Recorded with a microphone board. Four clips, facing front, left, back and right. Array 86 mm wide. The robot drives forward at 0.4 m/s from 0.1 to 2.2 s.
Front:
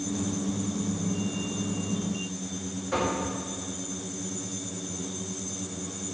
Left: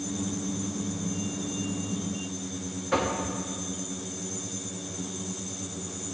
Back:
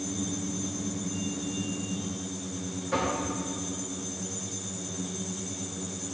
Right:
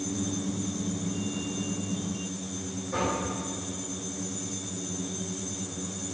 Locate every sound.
2.9 s knocking: 85° left, 1.6 m